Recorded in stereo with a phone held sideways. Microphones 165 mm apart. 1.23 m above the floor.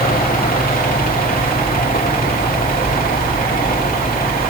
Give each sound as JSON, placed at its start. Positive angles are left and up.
{"t": 0.0, "sound": "a fan", "side_deg": 65, "distance_m": 2.5}